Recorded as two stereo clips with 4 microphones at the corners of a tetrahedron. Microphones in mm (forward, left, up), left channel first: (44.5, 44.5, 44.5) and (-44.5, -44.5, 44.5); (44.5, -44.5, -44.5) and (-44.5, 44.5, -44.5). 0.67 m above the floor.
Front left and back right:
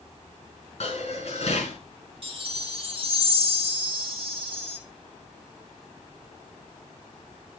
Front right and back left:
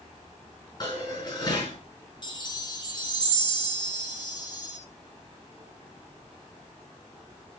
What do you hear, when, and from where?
0.8 s dishes clattering: 10° left, 5 m
2.2 s a chime: 95° right, 2.5 m